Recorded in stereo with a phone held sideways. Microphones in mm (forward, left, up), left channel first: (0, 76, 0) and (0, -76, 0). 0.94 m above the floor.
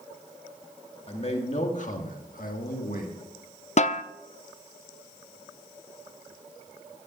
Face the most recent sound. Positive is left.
turn(degrees=50)  # may be behind; listen again after turning